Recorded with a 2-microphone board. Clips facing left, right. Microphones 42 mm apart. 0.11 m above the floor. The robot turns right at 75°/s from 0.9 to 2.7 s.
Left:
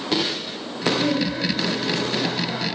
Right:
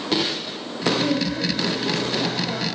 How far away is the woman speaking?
About 3 m.